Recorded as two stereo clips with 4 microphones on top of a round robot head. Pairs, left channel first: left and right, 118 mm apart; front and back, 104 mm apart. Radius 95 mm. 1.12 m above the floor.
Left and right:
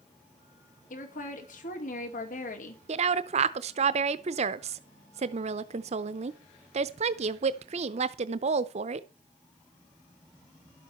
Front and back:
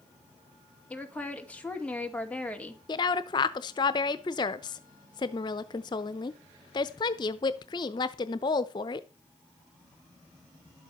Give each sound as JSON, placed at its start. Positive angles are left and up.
{"t": 0.9, "sound": "a woman speaking", "azimuth_deg": 75, "distance_m": 2.5}
{"t": 2.9, "sound": "a woman speaking", "azimuth_deg": -55, "distance_m": 0.6}